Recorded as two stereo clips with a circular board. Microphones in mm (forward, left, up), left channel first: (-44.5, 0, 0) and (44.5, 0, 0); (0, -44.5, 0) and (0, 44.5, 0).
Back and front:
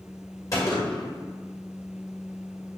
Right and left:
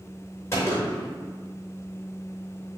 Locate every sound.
0.5 s a gunshot: 140° right, 1.4 m